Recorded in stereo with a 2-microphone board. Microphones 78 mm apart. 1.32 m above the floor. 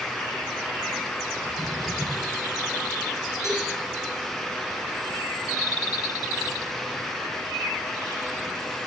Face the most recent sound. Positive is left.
turn(degrees=45)  # may be behind; listen again after turning